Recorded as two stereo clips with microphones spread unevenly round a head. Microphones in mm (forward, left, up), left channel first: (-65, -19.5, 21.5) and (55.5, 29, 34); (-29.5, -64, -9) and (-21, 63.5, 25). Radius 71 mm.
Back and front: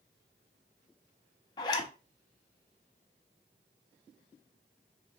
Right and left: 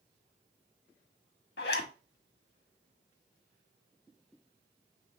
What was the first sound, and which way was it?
A zipper, 95° right.